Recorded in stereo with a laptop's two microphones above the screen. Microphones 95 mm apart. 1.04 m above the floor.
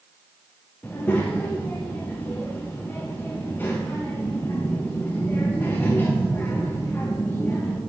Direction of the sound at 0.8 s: 20° left (ahead or behind).